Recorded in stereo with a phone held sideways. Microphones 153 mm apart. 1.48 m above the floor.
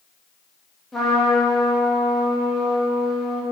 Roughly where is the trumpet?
Centre.